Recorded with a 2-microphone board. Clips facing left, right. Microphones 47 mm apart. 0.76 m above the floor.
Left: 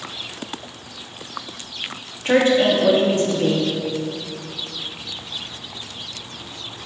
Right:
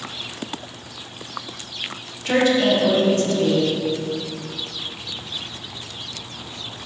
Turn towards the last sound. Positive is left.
turn(degrees=30)  # may be behind; listen again after turning